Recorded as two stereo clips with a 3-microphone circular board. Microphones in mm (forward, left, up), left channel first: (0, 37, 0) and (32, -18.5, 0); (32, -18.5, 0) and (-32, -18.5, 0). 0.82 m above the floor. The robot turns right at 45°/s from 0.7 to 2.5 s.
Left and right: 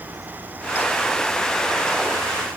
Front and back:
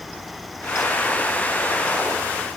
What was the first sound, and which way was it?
Only background noise.